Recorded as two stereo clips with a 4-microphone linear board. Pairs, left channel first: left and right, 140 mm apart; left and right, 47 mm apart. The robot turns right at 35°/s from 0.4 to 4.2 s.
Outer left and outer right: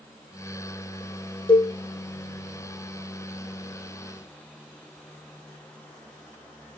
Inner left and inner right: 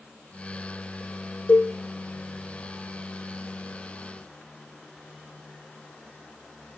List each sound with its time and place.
1.5 s a cowbell: 35° left (ahead or behind), 3.5 m; by 1.7 s 45° left (ahead or behind), 3.5 m